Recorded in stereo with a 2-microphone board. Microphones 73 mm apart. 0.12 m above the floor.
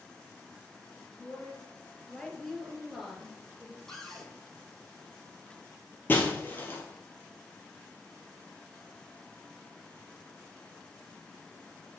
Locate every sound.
1.2 s a woman speaking: 20° left (ahead or behind), 2.5 m; by 3.8 s 20° right (ahead or behind), 1.6 m
3.9 s a cupboard door: 5° left (ahead or behind), 1.7 m
6.1 s breaking glass: 30° left (ahead or behind), 1.6 m